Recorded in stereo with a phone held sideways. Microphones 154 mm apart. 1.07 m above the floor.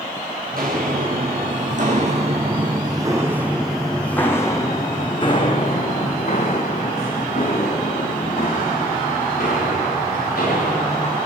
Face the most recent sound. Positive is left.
turn(degrees=60)  # may be behind; listen again after turning